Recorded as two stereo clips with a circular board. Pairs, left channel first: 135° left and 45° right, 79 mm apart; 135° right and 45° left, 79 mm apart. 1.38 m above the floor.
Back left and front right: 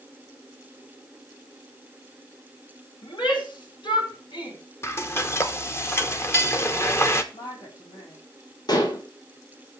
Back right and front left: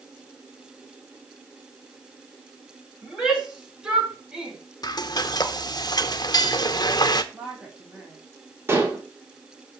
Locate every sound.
3.0 s a shout: 125° left, 4 m
4.8 s frying: 170° right, 0.9 m
7.3 s a woman speaking: 135° left, 4.5 m
8.7 s dishes clattering: 105° left, 2 m